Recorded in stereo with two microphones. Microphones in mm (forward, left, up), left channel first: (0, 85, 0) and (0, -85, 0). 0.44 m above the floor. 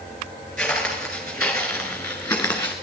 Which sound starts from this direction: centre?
Footsteps, at 0.6 s.